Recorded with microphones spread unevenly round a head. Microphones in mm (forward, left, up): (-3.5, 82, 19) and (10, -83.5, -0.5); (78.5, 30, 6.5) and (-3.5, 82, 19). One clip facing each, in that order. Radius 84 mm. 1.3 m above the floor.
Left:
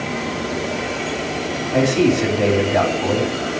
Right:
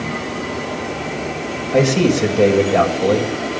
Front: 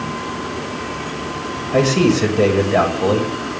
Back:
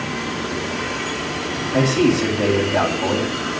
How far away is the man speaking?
About 7 m.